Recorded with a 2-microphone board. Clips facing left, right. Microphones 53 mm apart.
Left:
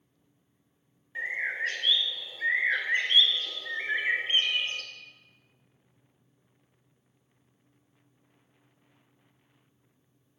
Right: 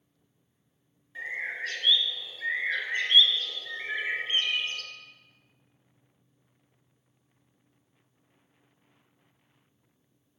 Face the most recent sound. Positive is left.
turn(degrees=30)  # may be behind; listen again after turning